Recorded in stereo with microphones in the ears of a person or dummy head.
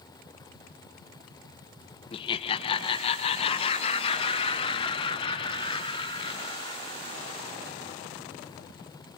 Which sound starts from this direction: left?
Laughter, at 2.1 s.